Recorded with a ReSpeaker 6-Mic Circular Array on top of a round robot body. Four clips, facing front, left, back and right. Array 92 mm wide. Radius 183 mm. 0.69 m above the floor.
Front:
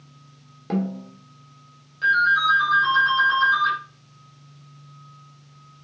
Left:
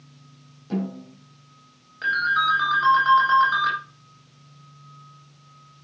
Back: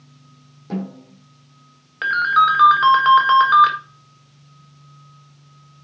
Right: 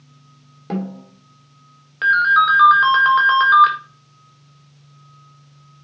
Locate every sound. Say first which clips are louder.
0.7 s a snare drum: right 2 dB, front 2 dB; 60° right, 2.5 m
2.0 s a ringtone: right 8 dB, back 3 dB; 145° right, 1.7 m